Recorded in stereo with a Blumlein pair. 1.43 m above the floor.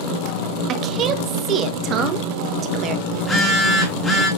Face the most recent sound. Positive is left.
turn(degrees=10)